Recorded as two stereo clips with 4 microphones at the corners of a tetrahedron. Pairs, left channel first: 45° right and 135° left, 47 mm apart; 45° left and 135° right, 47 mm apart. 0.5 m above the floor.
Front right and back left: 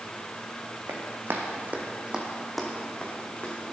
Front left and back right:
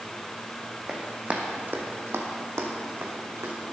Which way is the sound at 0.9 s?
155° left.